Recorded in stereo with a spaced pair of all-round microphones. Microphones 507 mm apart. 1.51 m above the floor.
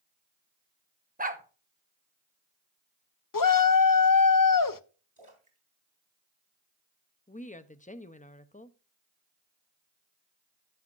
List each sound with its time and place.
1.2 s a dog barking: 15° right (ahead or behind), 0.9 m
3.3 s a shout: 40° left (ahead or behind), 0.6 m
5.2 s a splash: 70° right (ahead or behind), 4 m
7.3 s a woman speaking: 15° left (ahead or behind), 0.7 m